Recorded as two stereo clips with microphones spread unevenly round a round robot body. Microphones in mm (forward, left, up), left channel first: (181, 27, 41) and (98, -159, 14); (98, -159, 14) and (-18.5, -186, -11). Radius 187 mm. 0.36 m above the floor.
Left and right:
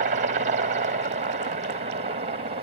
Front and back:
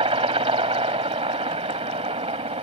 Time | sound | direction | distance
0.0 | a helicopter | 155° right | ?